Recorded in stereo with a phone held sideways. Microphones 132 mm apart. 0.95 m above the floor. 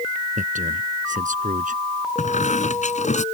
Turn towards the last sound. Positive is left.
turn(degrees=65)  # may be behind; listen again after turning